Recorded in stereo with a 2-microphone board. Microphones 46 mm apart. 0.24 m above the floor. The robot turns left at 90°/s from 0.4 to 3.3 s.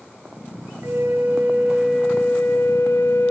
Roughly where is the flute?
Right.